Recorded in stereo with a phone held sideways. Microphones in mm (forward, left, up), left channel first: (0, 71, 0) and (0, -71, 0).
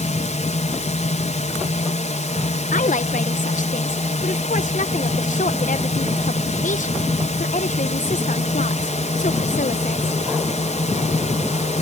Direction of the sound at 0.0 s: 60° left (ahead or behind).